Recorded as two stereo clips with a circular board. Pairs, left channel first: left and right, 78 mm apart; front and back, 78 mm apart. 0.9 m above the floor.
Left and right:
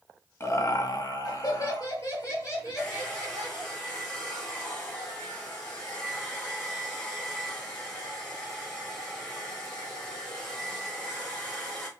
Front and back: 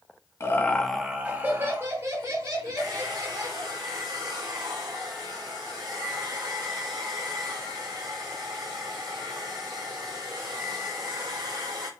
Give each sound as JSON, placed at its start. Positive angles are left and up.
{"t": 0.4, "sound": "laughter", "azimuth_deg": 45, "distance_m": 1.0}
{"t": 2.8, "sound": "a hair dryer", "azimuth_deg": 160, "distance_m": 3.0}